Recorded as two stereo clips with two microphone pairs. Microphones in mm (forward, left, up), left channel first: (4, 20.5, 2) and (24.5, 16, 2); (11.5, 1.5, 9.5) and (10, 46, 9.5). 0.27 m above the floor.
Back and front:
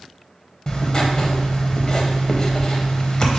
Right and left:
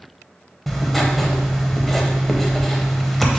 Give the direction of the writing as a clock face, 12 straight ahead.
6 o'clock.